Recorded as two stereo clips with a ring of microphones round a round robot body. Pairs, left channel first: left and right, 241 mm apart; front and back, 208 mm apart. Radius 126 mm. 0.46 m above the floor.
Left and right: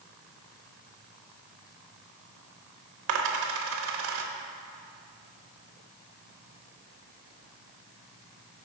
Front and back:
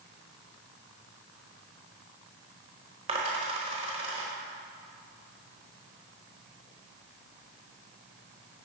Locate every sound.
3.1 s a dropped coin: 115° right, 0.8 m